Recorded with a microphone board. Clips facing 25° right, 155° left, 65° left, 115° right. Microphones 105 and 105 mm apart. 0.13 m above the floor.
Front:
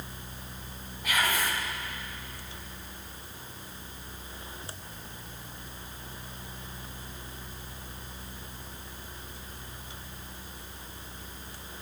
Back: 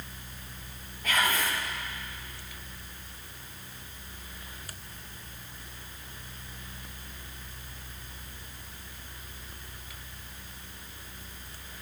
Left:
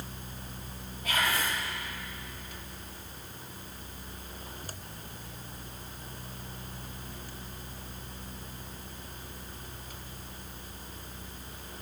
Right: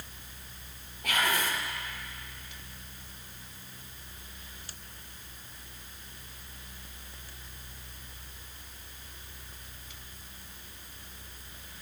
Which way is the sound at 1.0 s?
100° right.